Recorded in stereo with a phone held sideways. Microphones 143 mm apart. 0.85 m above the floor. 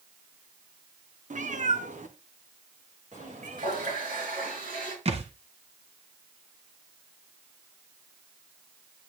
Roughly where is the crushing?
I don't hear crushing.